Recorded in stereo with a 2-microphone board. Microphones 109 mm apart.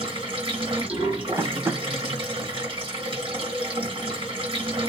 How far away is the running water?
About 1.8 m.